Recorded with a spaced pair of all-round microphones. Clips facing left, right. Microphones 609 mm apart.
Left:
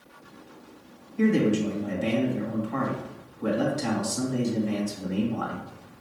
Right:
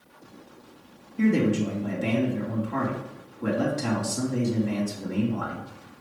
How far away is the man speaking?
About 2.5 m.